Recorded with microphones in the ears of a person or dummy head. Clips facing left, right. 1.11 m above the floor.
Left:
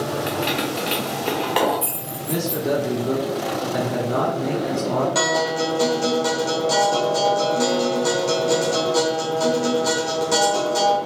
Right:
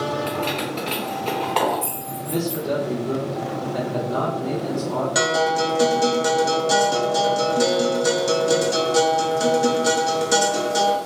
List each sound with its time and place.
0.3 s keys jangling: 15° left (ahead or behind), 0.7 m
2.3 s a man speaking: 65° left (ahead or behind), 1.1 m
5.2 s a guitar: 15° right (ahead or behind), 0.7 m